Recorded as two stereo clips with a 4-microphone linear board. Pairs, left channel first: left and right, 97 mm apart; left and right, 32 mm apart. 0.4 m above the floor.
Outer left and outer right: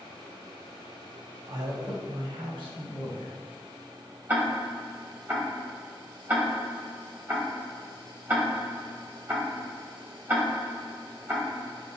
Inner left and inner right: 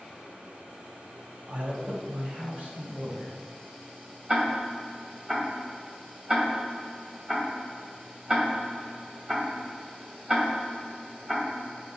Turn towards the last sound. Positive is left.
turn(degrees=-20)  # may be behind; listen again after turning